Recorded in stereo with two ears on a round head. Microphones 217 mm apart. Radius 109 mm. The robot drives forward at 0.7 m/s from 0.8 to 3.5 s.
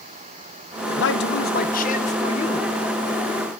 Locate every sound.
1.0 s a man speaking: 50° left (ahead or behind), 0.9 m; by 2.8 s 25° left (ahead or behind), 1.9 m